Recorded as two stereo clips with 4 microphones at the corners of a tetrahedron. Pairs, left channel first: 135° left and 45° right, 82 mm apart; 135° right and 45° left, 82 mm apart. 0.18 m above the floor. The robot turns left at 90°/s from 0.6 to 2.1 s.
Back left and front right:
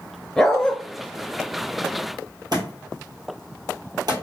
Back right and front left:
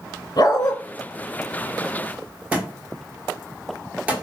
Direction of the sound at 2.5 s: 25° right.